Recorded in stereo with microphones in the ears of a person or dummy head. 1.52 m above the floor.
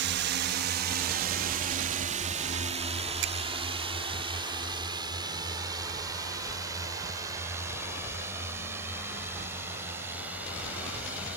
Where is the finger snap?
65° right (ahead or behind).